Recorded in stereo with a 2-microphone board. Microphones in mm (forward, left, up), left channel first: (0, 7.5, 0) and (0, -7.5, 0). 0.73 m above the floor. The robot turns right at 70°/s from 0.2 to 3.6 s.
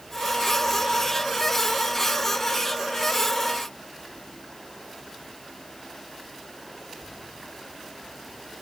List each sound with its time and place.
Only background noise.